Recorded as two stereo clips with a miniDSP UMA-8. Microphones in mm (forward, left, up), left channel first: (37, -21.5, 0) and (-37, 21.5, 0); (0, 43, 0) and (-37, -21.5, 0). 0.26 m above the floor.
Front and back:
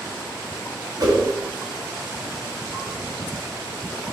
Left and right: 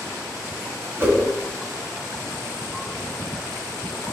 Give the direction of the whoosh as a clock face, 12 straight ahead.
6 o'clock.